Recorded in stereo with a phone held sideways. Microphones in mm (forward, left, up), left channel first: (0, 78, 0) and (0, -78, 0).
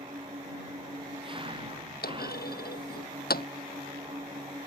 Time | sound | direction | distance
0.0 | an engine running | 35° right (ahead or behind) | ?
2.0 | a clunk | 85° left | ?